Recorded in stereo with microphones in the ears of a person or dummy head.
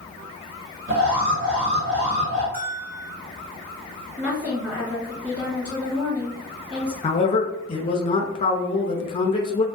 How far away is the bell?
About 1.8 m.